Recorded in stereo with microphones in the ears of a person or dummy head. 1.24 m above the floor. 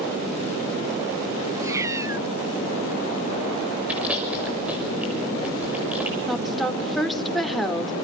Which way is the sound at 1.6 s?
15° right (ahead or behind).